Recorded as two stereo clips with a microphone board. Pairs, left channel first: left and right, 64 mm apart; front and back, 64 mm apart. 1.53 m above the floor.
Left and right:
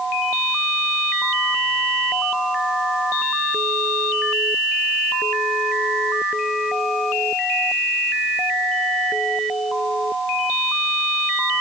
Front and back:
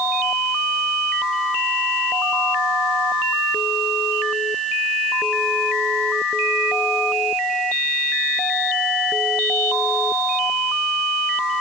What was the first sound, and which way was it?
Only background noise.